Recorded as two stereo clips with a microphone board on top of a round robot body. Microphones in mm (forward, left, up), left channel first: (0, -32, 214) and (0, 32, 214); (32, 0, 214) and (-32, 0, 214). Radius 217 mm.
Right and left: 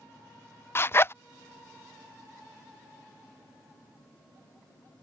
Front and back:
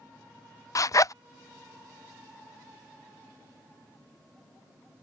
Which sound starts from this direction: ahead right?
A zipper, at 0.8 s.